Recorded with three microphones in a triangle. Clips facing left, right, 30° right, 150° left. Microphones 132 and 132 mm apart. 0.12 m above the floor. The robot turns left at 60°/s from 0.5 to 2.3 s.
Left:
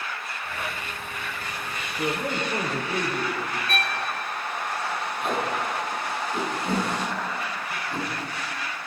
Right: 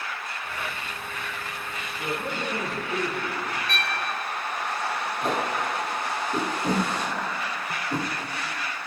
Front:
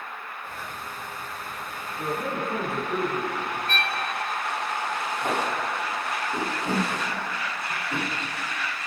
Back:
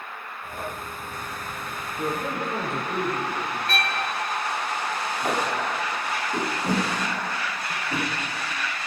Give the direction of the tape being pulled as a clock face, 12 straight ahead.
4 o'clock.